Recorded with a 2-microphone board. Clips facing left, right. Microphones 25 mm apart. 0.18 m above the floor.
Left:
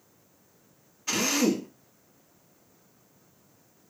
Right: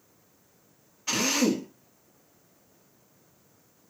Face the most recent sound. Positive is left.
turn(degrees=-10)  # may be behind; listen again after turning